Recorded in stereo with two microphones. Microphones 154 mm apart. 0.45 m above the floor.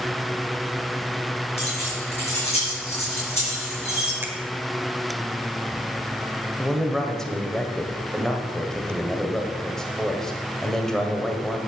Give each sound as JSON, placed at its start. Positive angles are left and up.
{"t": 1.6, "sound": "keys jangling", "side_deg": 45, "distance_m": 5.0}
{"t": 4.2, "sound": "a finger snap", "side_deg": -15, "distance_m": 1.1}
{"t": 6.6, "sound": "a man speaking", "side_deg": 5, "distance_m": 1.6}